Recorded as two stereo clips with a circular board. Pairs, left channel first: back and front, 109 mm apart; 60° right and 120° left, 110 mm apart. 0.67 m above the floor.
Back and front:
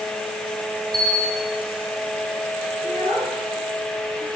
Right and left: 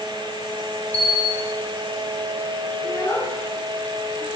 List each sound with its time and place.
0.9 s a bell: 45° right, 3 m
2.8 s a child speaking: straight ahead, 6 m